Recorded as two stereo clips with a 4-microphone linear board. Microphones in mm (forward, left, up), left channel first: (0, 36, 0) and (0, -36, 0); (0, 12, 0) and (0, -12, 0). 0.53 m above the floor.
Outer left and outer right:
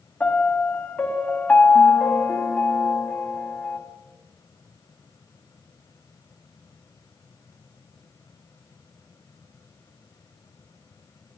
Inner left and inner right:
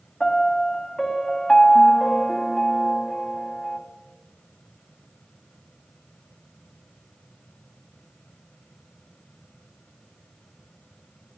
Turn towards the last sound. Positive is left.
turn(degrees=15)  # may be behind; listen again after turning